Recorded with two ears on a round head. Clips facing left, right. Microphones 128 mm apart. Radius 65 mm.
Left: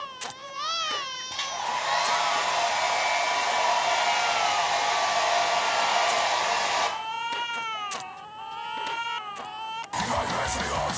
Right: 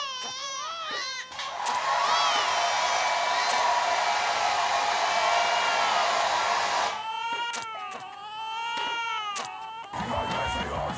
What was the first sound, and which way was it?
A hair dryer, 25° left (ahead or behind).